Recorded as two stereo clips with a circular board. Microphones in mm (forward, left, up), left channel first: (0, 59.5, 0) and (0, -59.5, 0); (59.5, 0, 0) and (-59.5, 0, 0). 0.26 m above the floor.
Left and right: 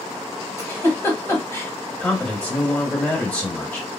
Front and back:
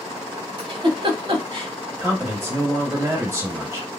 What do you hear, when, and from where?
0.6 s a giggle: 150° left, 1.0 m
2.0 s a man speaking: 155° left, 1.3 m